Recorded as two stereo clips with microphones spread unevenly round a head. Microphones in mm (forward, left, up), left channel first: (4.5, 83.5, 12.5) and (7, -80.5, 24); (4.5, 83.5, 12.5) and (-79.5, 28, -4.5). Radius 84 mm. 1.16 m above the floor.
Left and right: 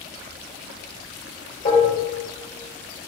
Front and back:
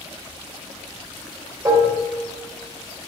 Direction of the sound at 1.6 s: 130° left.